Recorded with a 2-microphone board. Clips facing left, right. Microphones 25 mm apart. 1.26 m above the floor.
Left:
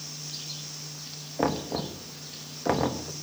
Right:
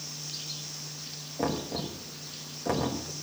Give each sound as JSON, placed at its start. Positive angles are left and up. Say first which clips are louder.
{"t": 1.4, "sound": "knocking", "louder": "left 3 dB", "side_deg": 25, "distance_m": 1.2}